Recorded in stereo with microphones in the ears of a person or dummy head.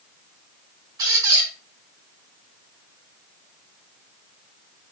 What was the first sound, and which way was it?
A squeak, 25° right (ahead or behind).